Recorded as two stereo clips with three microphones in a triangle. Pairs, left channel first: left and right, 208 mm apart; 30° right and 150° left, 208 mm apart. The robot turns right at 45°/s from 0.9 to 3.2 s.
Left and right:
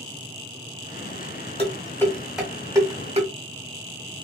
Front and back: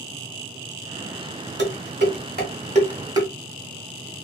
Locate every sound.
1.6 s dishes clattering: 145° left, 1.4 m; by 3.3 s 140° right, 1.4 m